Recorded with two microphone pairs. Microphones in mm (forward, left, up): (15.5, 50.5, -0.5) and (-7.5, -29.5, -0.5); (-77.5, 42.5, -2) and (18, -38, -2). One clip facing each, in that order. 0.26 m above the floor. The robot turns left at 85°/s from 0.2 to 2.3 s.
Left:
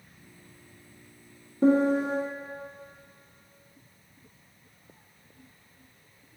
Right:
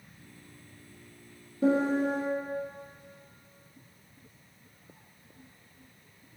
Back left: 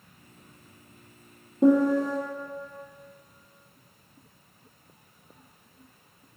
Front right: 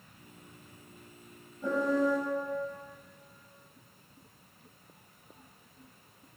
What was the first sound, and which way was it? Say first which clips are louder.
A piano: left 3 dB, back left 8 dB; 135° left.